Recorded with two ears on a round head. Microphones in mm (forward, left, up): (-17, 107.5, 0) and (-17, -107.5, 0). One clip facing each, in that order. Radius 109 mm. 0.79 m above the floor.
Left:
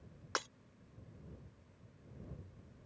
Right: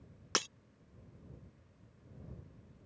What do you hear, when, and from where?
0.3 s breaking glass: 40° right (ahead or behind)